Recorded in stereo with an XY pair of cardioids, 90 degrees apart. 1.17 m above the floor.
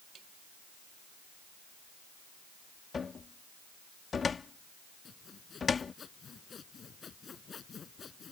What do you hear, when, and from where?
0.1 s tapping: 65° right
2.9 s a cupboard door: 45° left
5.0 s sawing: 50° left